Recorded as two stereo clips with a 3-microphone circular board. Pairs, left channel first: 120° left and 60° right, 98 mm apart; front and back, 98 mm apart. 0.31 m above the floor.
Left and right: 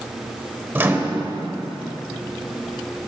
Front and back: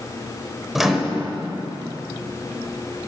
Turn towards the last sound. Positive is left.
turn(degrees=-95)